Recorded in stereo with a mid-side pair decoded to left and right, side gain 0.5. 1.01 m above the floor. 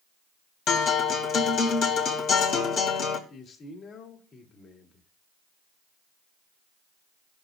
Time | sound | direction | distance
0.7 | a guitar | 65° left | 2 m
3.3 | a man speaking | 60° left | 2.5 m